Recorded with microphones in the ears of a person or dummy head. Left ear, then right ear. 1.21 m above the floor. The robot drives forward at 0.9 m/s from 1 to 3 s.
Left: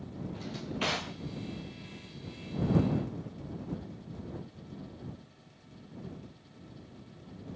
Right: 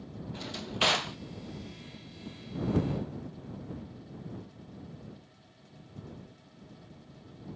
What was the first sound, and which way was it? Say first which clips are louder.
A drawer: right 6 dB; 30° right (ahead or behind).